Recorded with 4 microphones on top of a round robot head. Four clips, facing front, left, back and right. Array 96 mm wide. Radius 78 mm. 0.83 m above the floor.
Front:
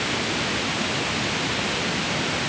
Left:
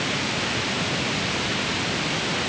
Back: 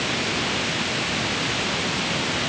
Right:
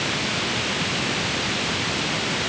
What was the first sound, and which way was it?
Only background noise.